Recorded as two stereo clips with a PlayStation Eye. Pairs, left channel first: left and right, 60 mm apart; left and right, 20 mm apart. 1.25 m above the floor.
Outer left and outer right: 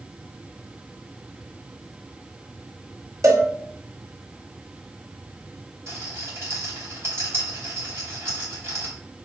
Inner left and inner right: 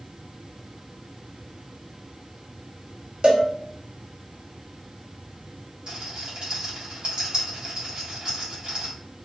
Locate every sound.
3.2 s a cowbell: 60° right (ahead or behind), 1.0 m
5.9 s a rattle: 50° right (ahead or behind), 2.5 m